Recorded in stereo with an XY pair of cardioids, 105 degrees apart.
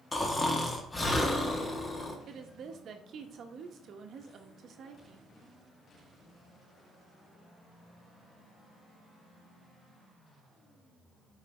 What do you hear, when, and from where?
0.1 s snoring: 20° left, 1.6 m
2.3 s a woman speaking: 60° right, 1.2 m